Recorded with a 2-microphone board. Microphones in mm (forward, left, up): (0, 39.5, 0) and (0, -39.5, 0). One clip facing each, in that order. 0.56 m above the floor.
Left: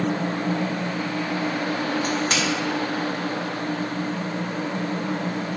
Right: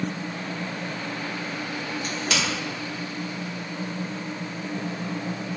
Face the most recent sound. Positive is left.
turn(degrees=35)  # may be behind; listen again after turning